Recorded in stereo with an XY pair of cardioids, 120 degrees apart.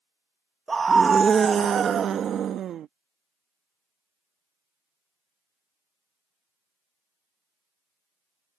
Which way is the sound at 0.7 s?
20° right.